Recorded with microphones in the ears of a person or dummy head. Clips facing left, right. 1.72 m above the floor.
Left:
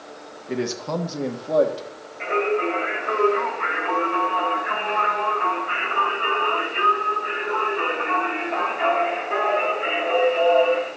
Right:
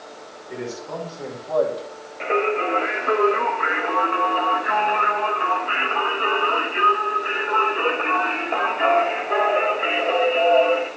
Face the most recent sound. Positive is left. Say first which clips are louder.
# even
turn(degrees=-50)  # may be behind; listen again after turning